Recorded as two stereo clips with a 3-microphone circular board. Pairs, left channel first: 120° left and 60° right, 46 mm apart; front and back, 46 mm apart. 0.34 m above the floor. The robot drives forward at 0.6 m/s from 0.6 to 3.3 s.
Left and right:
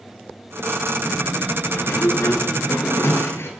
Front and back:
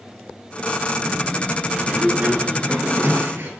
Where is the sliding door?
110° left, 1.1 m; by 3.5 s 145° left, 1.6 m.